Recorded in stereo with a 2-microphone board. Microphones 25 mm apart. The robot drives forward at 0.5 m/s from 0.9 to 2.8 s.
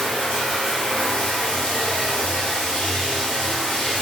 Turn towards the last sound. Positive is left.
turn(degrees=55)  # may be behind; listen again after turning